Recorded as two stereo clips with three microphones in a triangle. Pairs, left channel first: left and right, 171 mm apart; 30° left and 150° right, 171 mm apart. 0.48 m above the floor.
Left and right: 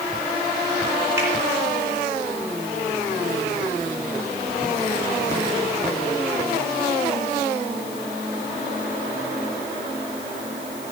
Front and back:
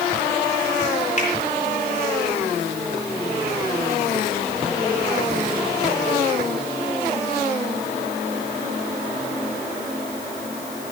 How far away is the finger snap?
About 7 m.